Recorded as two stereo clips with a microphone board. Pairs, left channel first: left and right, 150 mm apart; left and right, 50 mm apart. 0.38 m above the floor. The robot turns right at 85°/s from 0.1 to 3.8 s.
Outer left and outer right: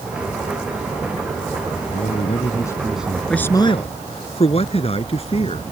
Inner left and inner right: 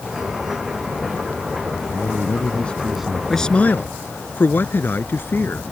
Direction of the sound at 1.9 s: 95° left.